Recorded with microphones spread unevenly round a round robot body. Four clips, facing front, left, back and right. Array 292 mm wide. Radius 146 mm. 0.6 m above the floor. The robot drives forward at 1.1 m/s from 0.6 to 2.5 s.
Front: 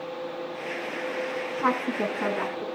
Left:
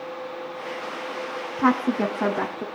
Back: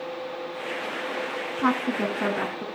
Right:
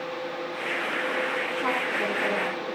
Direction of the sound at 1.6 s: 95° left.